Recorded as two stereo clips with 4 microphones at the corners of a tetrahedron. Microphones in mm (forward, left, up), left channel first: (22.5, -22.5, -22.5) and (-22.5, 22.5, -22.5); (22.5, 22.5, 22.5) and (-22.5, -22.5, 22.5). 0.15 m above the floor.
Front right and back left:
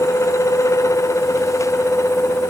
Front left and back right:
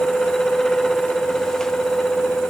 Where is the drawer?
No drawer in this recording.